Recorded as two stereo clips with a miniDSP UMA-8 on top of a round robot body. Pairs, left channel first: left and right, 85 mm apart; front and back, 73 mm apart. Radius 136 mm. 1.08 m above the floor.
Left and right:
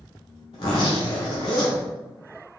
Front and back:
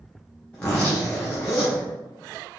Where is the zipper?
75° left, 0.6 m.